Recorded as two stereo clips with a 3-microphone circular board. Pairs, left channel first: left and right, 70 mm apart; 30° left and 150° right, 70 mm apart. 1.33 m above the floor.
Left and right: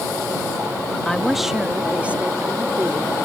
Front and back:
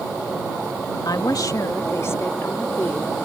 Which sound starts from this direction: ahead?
A woman speaking, at 1.1 s.